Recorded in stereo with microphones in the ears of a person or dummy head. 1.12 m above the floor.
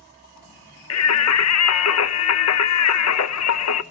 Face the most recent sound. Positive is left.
turn(degrees=75)  # may be behind; listen again after turning